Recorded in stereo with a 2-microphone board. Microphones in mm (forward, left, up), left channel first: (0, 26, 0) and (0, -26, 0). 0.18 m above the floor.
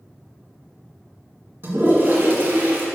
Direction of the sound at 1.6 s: 45° right (ahead or behind).